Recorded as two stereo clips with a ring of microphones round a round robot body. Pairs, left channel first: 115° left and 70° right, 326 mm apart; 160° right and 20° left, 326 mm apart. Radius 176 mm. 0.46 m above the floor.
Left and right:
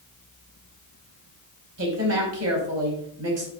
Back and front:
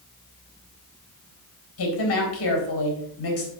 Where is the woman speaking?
110° right, 4 m.